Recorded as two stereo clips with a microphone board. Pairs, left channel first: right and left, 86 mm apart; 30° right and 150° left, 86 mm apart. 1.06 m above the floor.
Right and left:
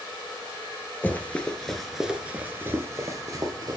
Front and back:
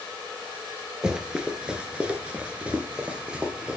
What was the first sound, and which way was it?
Running footsteps, 135° right.